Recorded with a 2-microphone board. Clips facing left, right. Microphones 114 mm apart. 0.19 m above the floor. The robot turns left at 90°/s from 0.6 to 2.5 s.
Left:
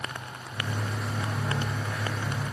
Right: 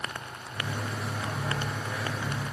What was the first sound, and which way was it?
Only background noise.